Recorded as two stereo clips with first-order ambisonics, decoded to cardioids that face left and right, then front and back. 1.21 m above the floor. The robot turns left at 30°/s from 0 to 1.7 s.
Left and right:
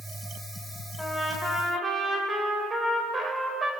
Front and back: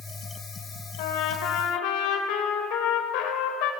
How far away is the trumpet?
About 3.5 m.